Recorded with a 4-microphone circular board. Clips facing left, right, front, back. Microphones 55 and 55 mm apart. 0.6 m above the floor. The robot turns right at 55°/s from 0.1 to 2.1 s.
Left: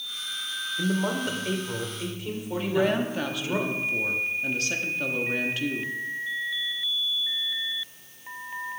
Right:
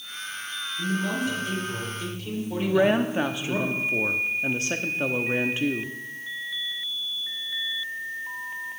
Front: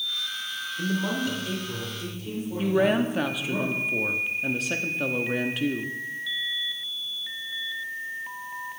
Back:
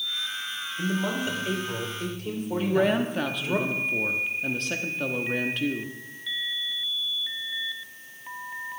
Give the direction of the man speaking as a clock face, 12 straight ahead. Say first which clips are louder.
Even, even; 9 o'clock.